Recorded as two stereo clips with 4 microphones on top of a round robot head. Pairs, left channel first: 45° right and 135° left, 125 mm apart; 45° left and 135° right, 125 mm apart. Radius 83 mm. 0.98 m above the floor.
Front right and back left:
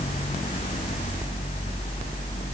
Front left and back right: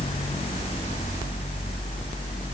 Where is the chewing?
No chewing in this recording.